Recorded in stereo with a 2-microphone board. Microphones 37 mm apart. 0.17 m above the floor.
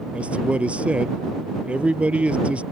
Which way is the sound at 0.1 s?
35° right (ahead or behind).